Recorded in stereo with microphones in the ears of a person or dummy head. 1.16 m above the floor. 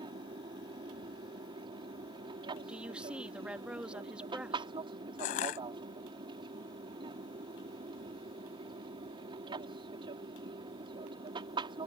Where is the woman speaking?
5° right (ahead or behind).